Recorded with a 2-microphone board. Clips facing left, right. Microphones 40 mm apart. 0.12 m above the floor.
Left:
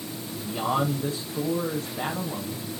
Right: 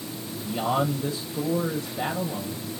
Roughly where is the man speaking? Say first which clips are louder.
Right 1 dB; left.